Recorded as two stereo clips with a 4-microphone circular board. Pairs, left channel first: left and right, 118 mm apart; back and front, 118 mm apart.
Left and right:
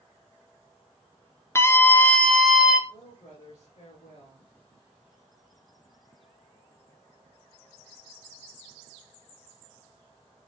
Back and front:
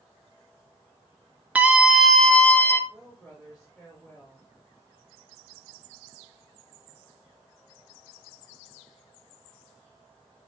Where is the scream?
60° left, 1.1 m; by 2.8 s 160° right, 1.1 m.